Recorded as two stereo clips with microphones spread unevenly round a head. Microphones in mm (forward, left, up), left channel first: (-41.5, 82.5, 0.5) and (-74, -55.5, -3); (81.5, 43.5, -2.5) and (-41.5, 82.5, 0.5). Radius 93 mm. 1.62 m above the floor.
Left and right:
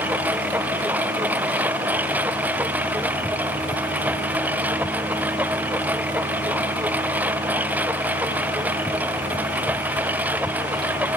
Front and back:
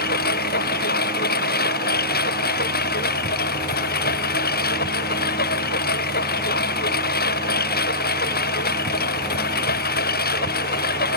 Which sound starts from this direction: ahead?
A lawn mower, at 0.0 s.